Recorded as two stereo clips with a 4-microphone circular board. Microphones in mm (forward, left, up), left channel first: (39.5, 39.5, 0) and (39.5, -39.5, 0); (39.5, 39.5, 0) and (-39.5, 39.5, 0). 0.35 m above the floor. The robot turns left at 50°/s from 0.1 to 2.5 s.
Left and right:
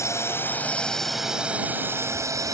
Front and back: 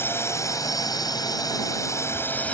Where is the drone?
50° left; by 2.5 s 70° right.